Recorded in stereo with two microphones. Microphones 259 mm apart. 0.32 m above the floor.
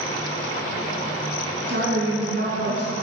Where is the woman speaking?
45° right (ahead or behind), 3 m.